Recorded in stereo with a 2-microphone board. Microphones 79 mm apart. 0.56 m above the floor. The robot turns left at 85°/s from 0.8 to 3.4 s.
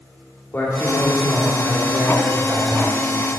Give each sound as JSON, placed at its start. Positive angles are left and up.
{"t": 0.5, "sound": "a man speaking", "azimuth_deg": 40, "distance_m": 1.7}